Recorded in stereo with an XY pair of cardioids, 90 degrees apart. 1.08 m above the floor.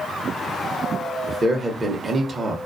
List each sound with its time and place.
1.3 s a man speaking: 35° right, 0.7 m